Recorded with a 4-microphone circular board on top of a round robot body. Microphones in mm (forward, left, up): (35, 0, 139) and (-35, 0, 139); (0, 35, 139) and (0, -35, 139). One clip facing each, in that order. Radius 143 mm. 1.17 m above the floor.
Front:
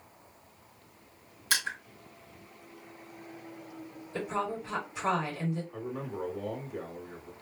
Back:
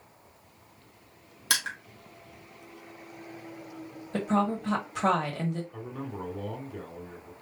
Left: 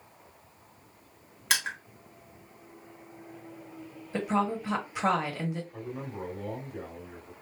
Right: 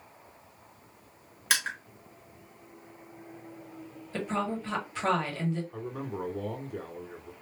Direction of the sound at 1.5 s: Straight behind.